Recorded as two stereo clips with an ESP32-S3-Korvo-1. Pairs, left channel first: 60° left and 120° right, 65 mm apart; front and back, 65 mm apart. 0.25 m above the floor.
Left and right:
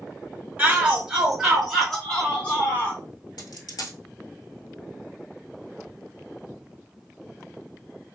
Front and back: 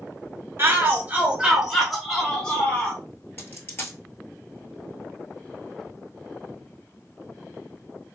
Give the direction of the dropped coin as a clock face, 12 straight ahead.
10 o'clock.